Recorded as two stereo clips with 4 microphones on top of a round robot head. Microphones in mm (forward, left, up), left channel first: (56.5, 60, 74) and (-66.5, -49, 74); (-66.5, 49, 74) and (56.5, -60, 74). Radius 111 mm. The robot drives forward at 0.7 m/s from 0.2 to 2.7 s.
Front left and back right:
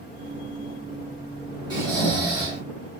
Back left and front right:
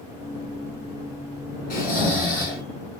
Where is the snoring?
160° left, 1.8 m; by 2.6 s 165° left, 2.5 m.